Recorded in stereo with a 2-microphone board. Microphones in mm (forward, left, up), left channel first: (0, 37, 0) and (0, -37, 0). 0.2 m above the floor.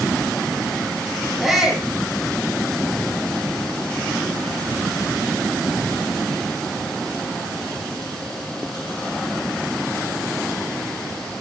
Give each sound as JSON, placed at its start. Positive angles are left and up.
{"t": 1.4, "sound": "a shout", "side_deg": 0, "distance_m": 6.0}